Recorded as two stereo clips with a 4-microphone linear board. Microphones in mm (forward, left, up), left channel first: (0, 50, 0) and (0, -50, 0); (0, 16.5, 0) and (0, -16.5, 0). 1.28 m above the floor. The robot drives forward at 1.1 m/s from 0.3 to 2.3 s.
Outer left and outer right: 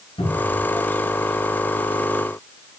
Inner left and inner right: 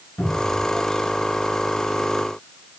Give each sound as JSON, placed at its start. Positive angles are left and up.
{"t": 0.2, "sound": "a cupboard door", "side_deg": 85, "distance_m": 7.5}